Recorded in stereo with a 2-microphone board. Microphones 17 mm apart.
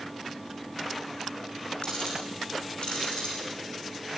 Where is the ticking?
60° left (ahead or behind), 8.5 m.